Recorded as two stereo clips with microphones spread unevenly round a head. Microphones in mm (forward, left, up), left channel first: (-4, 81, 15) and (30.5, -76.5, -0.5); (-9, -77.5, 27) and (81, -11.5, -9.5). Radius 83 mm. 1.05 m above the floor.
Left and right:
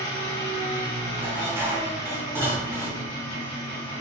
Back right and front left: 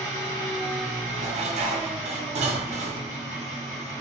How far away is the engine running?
About 1.5 m.